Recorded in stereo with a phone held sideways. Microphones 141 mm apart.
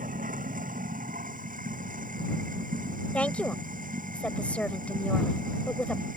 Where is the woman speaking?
10° left (ahead or behind).